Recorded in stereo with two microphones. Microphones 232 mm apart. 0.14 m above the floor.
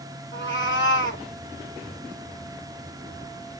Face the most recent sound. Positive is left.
turn(degrees=55)  # may be behind; listen again after turning